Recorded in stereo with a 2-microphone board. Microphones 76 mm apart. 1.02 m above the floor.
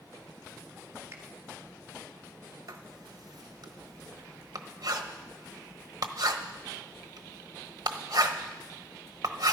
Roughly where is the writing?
Right.